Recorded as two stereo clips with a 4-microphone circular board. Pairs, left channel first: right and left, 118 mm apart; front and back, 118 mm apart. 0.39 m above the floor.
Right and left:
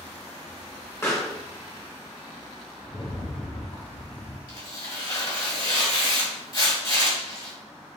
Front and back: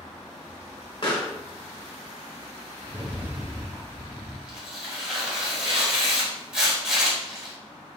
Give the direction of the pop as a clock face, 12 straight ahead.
1 o'clock.